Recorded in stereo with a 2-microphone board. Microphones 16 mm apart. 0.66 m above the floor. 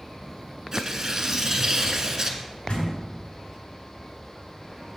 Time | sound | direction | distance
0.7 | tearing paper | 30° right (ahead or behind) | 1.5 m
2.7 | a door slam | 80° left | 3.5 m